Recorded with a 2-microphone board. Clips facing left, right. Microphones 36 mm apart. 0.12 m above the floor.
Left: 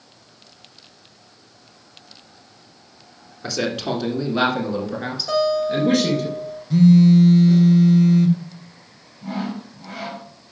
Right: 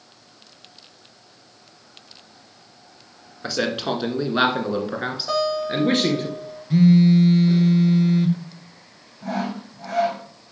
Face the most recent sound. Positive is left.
turn(degrees=-70)  # may be behind; listen again after turning